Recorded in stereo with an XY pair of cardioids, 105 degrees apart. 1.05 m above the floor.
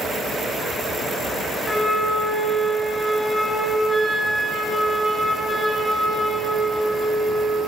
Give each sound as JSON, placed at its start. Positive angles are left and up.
{"t": 1.6, "sound": "a flute", "azimuth_deg": 20, "distance_m": 1.8}